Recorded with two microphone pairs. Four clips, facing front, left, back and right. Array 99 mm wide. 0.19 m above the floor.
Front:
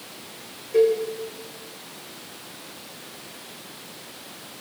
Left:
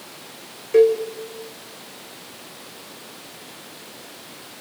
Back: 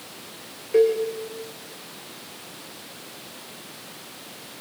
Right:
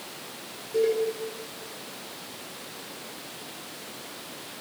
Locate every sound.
0.7 s a cowbell: 105° left, 6 m